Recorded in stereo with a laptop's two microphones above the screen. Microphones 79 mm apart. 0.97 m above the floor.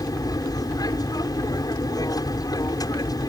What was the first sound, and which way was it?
An aircraft, 50° left (ahead or behind).